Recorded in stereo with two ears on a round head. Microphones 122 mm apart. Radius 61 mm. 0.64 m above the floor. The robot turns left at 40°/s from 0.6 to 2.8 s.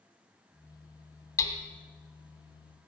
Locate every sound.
1.4 s hammering: 20° left (ahead or behind), 2.5 m; by 1.6 s 30° left (ahead or behind), 2.5 m